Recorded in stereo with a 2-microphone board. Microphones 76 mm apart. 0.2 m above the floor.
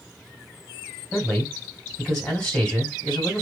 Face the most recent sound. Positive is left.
turn(degrees=10)  # may be behind; listen again after turning